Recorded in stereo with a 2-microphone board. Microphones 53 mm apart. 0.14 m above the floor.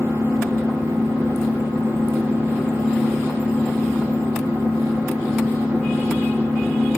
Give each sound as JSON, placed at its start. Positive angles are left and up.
{"t": 0.0, "sound": "an engine running", "side_deg": -75, "distance_m": 4.5}